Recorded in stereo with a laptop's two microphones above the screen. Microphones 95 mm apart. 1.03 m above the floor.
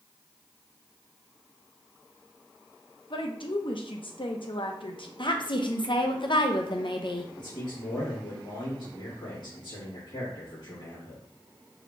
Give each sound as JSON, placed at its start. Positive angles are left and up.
{"t": 3.1, "sound": "a woman speaking", "side_deg": 65, "distance_m": 0.7}
{"t": 5.2, "sound": "a woman speaking", "side_deg": 55, "distance_m": 0.6}
{"t": 7.4, "sound": "a man speaking", "side_deg": 60, "distance_m": 2.5}